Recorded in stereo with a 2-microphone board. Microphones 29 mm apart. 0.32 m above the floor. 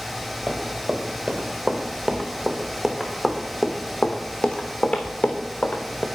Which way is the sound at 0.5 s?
40° right (ahead or behind).